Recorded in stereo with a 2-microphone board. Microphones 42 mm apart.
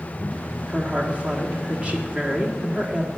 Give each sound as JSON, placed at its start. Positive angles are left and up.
{"t": 0.7, "sound": "a woman speaking", "side_deg": -30, "distance_m": 1.3}